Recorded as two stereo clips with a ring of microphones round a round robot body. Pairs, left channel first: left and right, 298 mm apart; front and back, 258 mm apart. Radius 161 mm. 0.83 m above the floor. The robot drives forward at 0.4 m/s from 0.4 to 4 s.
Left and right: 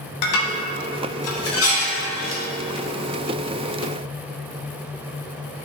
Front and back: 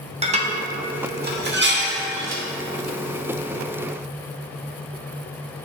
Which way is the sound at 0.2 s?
115° left.